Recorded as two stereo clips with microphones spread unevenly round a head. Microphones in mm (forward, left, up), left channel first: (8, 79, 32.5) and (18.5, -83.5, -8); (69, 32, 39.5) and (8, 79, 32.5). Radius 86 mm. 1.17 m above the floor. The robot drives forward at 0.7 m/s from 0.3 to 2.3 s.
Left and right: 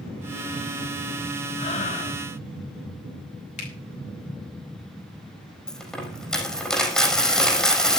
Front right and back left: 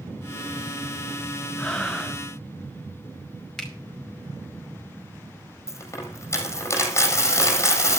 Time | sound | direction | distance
1.6 | breathing | 40° left | 1.9 m
3.6 | a finger snap | 45° left | 5 m
5.7 | a dropped coin | 10° left | 4.5 m